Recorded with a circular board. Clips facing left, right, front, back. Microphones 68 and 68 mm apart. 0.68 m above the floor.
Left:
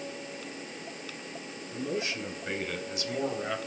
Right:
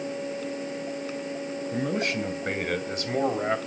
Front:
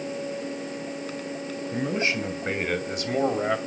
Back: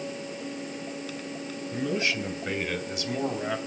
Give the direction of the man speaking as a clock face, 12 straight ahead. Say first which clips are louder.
Right 5 dB, front 2 dB; 2 o'clock.